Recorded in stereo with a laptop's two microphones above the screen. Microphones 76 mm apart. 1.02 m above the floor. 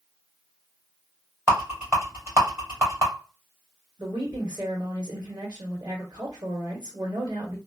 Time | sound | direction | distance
1.5 | a rattle | 35° right (ahead or behind) | 2.0 m
4.0 | a woman speaking | 60° right (ahead or behind) | 2 m